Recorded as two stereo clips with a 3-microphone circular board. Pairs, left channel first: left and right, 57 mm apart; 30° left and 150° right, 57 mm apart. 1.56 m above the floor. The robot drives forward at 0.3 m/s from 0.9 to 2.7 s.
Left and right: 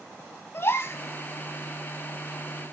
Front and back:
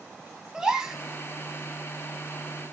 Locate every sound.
0.5 s a gasp: 130° left, 3.5 m